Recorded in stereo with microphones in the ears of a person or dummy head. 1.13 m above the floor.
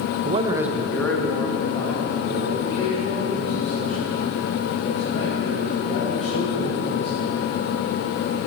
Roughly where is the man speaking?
Right.